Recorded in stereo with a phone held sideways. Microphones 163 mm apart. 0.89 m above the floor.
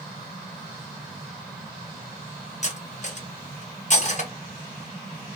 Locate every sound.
2.6 s cutlery clinking: 50° left (ahead or behind), 0.7 m